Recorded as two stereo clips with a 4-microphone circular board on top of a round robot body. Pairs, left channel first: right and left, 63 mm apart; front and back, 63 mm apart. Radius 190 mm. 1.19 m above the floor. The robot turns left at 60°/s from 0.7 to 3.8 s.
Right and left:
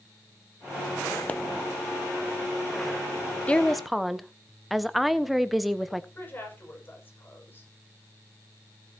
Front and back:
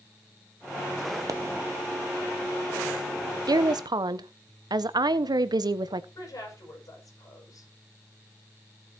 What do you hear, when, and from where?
1.3 s a pop: 155° right, 1.0 m; by 1.4 s 160° right, 1.0 m
3.5 s a woman speaking: 160° right, 0.9 m; by 6.0 s straight behind, 0.9 m
6.2 s a woman speaking: 30° right, 6.5 m